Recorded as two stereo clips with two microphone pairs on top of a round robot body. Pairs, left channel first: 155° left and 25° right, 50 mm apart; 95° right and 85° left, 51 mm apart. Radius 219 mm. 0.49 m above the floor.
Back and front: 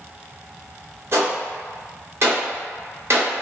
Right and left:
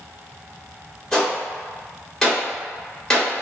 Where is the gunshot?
25° right, 1.3 m.